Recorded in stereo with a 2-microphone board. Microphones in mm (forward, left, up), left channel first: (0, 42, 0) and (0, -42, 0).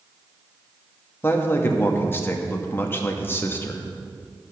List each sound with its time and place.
1.2 s a man speaking: 25° left (ahead or behind), 1.1 m